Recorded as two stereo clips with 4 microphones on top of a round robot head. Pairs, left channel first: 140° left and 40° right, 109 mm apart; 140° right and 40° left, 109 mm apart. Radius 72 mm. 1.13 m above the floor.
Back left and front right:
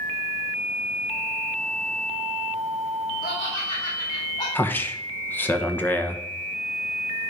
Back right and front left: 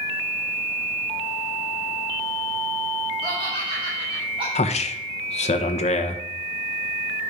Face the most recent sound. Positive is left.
turn(degrees=-150)